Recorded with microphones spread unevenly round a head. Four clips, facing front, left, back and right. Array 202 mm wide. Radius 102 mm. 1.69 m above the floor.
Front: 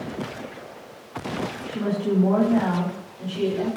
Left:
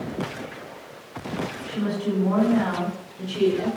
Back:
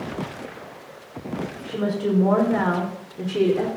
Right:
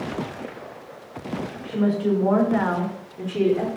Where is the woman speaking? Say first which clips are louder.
Right 6 dB, back 2 dB; 155° right, 6 m; by 3.7 s 160° right, 5 m.